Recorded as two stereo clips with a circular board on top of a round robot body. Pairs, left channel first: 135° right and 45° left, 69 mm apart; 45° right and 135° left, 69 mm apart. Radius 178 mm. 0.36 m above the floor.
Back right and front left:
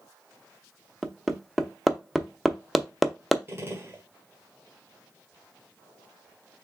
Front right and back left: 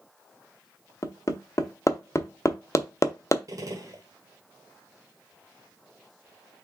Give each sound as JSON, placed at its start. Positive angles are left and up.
{"t": 1.0, "sound": "hammering", "azimuth_deg": -45, "distance_m": 1.0}
{"t": 3.5, "sound": "a gunshot", "azimuth_deg": 100, "distance_m": 1.6}